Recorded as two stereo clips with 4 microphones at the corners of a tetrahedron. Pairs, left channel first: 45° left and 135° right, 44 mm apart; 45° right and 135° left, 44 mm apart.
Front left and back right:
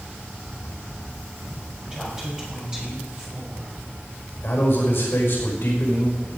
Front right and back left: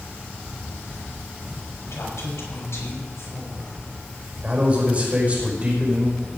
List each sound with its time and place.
1.8 s a woman speaking: 60° right, 5 m
4.4 s a man speaking: 80° left, 5 m